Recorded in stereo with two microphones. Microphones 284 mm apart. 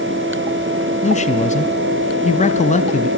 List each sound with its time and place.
1.0 s a man speaking: 25° left (ahead or behind), 1.4 m